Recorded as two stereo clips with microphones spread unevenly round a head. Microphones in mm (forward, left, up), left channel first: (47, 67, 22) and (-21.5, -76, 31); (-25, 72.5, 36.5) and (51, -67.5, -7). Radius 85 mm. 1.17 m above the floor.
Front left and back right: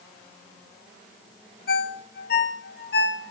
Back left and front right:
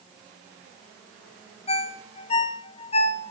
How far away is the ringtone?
About 0.6 m.